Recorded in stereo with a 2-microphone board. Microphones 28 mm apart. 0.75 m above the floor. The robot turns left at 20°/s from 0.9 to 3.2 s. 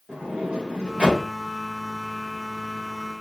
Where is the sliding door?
30° right (ahead or behind), 2.5 m; by 1.2 s 35° right (ahead or behind), 2.5 m.